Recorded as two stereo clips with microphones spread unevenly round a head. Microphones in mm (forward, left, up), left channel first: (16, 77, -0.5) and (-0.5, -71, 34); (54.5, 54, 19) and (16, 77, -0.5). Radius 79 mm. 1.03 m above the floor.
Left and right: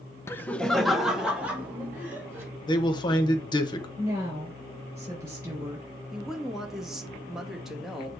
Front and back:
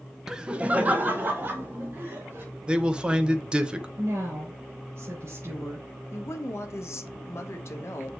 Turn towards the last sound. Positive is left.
turn(degrees=-5)